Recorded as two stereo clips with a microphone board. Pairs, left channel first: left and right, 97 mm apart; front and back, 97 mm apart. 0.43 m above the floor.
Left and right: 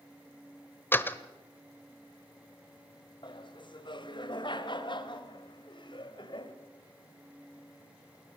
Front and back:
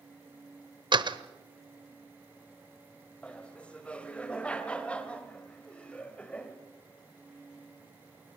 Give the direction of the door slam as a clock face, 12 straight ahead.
7 o'clock.